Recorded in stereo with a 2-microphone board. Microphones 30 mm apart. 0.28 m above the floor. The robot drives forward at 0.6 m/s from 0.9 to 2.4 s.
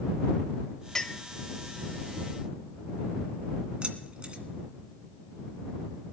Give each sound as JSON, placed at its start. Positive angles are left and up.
{"t": 0.9, "sound": "a clink", "side_deg": 20, "distance_m": 0.8}
{"t": 3.8, "sound": "keys jangling", "side_deg": -35, "distance_m": 2.0}